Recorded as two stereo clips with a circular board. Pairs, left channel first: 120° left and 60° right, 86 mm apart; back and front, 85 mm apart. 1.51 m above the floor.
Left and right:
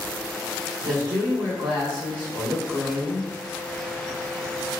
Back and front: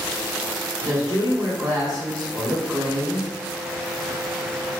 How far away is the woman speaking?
About 1.3 m.